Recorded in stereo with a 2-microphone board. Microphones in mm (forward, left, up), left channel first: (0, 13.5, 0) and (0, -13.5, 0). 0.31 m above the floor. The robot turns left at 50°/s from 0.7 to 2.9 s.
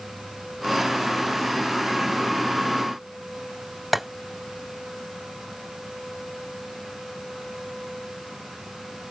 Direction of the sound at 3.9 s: 10° right (ahead or behind).